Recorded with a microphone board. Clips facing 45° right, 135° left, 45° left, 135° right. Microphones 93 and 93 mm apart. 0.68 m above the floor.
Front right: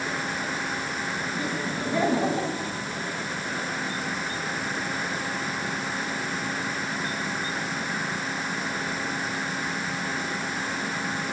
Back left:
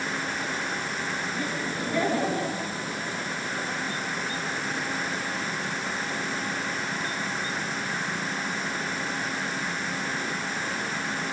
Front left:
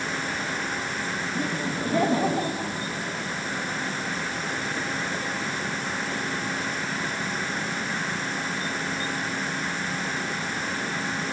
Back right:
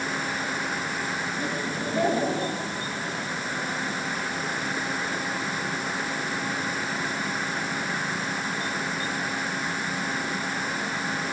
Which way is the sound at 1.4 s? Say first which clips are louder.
Front right 1 dB, front left 1 dB; 30° left.